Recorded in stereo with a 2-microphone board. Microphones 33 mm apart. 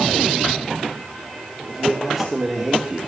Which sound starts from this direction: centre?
A man speaking, at 1.7 s.